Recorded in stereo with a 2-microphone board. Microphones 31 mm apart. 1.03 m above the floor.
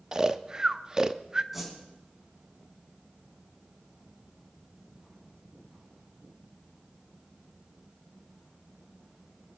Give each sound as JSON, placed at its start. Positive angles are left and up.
{"t": 0.1, "sound": "snoring", "side_deg": -25, "distance_m": 0.6}
{"t": 1.5, "sound": "a whoosh", "side_deg": -10, "distance_m": 4.5}